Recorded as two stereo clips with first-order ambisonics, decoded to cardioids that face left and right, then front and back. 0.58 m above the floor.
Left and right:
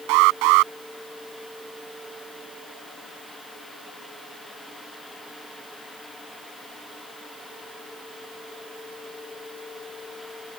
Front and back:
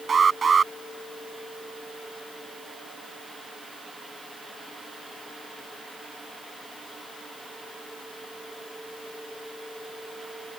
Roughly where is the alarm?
Right.